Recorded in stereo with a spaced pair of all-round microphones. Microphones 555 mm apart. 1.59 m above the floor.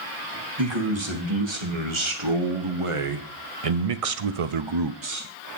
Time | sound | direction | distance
0.6 | a man speaking | 50° right (ahead or behind) | 2.5 m